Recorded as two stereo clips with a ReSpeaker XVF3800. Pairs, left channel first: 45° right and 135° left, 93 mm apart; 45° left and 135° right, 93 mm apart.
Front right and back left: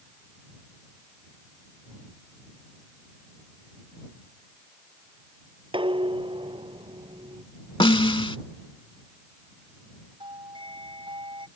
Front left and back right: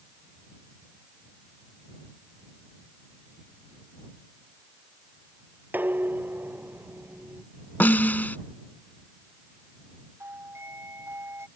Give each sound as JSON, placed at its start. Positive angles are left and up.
{"t": 5.7, "sound": "dishes clattering", "azimuth_deg": 155}
{"t": 7.8, "sound": "a snare drum", "azimuth_deg": -25}
{"t": 10.2, "sound": "a doorbell", "azimuth_deg": 165}